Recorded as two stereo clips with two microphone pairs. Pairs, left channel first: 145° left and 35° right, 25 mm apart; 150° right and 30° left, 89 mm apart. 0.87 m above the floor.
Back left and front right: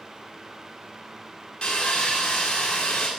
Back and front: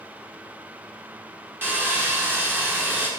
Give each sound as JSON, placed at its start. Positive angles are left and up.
{"t": 1.6, "sound": "sawing", "azimuth_deg": 95, "distance_m": 1.9}